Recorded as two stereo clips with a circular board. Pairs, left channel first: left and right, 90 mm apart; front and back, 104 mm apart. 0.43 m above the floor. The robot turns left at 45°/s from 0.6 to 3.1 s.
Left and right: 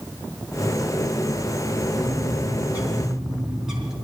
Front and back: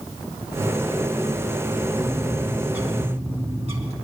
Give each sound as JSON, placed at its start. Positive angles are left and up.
{"t": 2.0, "sound": "a bird", "azimuth_deg": -125, "distance_m": 3.0}